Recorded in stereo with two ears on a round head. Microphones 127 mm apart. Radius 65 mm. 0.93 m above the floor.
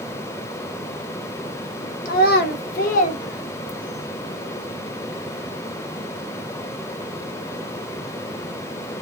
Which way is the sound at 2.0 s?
55° left (ahead or behind).